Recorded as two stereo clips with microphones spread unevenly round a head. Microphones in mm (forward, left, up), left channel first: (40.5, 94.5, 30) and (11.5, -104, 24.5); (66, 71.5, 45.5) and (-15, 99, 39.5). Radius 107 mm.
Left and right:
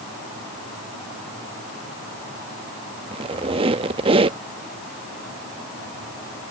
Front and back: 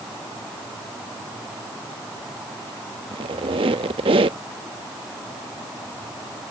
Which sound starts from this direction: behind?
A squeak, at 3.1 s.